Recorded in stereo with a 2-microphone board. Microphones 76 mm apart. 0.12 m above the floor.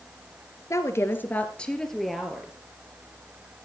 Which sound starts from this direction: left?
A woman speaking, at 0.7 s.